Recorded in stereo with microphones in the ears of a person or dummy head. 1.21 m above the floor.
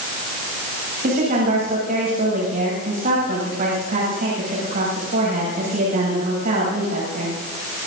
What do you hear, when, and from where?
1.0 s a woman speaking: 45° right (ahead or behind), 7.5 m